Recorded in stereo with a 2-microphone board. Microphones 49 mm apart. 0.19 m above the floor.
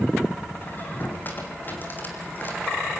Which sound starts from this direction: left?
A squeak, at 0.6 s.